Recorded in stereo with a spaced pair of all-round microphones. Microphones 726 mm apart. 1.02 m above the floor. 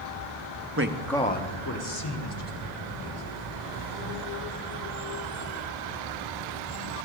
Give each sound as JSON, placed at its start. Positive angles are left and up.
{"t": 0.8, "sound": "a man speaking", "side_deg": -20, "distance_m": 1.1}